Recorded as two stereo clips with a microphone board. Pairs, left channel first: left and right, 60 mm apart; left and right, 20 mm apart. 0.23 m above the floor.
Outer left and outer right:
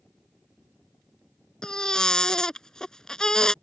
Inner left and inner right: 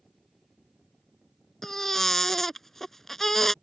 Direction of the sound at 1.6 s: 10° left (ahead or behind).